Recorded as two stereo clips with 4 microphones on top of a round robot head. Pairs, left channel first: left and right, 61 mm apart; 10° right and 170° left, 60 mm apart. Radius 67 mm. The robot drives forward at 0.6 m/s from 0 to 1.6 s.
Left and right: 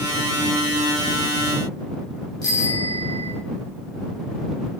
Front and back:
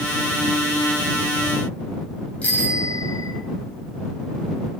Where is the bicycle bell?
60° left, 7 m.